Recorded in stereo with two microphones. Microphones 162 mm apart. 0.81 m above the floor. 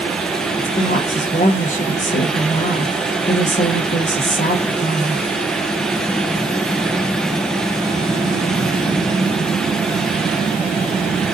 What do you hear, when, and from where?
0.6 s a woman speaking: 50° left (ahead or behind), 0.8 m